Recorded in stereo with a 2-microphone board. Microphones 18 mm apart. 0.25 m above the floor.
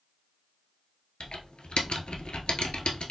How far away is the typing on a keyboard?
About 0.8 m.